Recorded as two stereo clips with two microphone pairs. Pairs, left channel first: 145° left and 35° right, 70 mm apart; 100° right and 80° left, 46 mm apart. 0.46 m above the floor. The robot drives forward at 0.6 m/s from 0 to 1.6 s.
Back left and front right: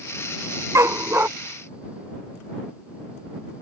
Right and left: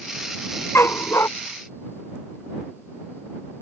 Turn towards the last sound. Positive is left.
turn(degrees=-100)